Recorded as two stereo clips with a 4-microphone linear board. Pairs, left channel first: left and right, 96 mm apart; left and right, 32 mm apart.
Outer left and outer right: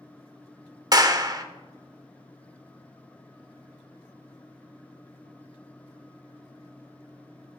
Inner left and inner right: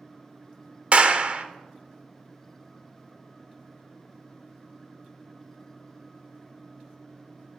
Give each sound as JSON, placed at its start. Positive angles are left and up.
{"t": 0.9, "sound": "a clap", "side_deg": -40, "distance_m": 0.8}